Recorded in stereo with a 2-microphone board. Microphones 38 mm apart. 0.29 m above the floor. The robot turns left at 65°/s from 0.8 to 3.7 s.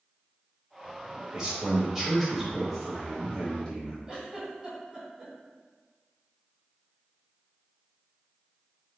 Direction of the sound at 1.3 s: 25° right (ahead or behind).